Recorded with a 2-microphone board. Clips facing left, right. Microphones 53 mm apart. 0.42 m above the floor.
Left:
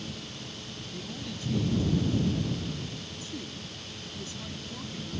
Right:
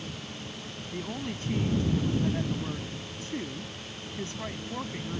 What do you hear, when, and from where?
0.9 s a woman speaking: 50° right (ahead or behind)